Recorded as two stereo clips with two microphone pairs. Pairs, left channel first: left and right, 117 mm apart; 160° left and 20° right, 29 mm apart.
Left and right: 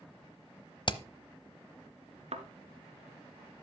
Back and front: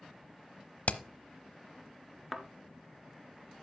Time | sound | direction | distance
0.9 | hammering | 135° left | 0.9 m
2.3 | a thud | 105° right | 1.5 m